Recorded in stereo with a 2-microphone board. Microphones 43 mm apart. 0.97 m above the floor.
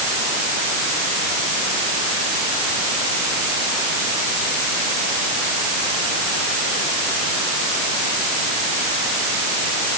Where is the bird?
I don't hear a bird.